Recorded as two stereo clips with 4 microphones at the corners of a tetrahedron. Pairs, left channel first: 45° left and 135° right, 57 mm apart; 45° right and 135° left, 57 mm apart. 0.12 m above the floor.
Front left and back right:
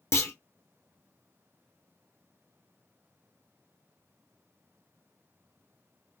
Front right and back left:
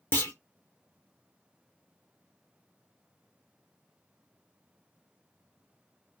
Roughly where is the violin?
No violin in this recording.